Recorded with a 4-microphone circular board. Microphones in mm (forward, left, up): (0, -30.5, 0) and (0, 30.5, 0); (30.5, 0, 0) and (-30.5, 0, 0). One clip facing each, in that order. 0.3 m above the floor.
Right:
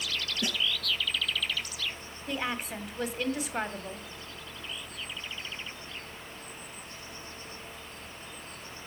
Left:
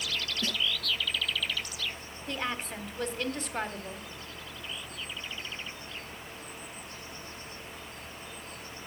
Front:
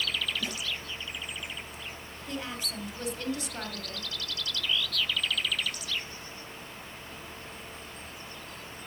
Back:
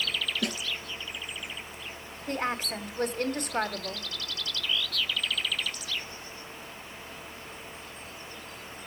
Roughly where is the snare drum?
Behind.